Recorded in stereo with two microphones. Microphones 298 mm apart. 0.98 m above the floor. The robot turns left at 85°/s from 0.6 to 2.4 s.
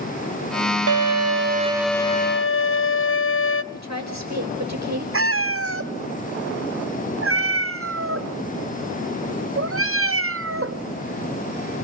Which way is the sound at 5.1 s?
45° right (ahead or behind).